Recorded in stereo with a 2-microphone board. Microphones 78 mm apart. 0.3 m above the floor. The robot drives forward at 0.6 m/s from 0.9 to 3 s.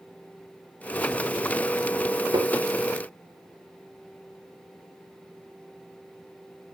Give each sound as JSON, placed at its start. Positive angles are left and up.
{"t": 2.3, "sound": "tapping", "side_deg": -75, "distance_m": 0.9}